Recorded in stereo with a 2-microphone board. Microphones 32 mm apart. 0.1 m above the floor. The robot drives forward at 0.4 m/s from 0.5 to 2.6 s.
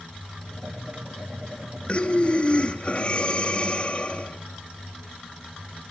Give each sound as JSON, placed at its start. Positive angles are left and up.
{"t": 1.9, "sound": "breathing", "side_deg": 35, "distance_m": 1.5}